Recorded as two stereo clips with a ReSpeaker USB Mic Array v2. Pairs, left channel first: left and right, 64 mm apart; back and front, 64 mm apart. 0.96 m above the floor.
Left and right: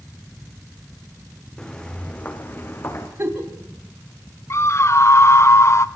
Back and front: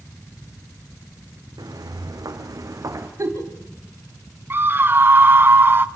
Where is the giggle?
40° right, 3 m.